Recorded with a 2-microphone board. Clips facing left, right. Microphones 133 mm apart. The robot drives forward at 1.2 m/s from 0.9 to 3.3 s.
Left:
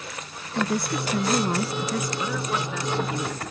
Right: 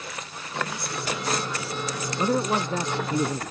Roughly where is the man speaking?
Right.